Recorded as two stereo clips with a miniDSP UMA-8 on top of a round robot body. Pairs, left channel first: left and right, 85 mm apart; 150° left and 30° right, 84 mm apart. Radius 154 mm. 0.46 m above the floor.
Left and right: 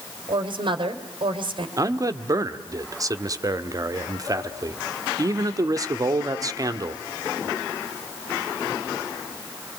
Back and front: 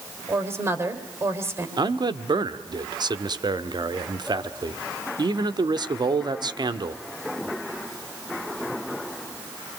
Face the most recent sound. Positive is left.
turn(degrees=-50)